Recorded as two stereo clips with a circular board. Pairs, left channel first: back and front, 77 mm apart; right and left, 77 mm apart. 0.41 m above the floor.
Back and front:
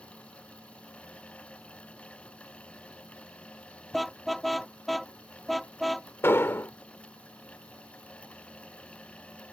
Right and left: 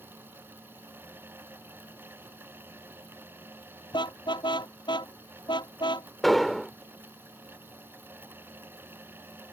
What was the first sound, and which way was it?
A car horn, 90° right.